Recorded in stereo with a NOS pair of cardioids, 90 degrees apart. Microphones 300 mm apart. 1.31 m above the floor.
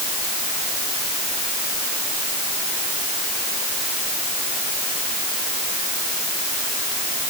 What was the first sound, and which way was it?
Only background noise.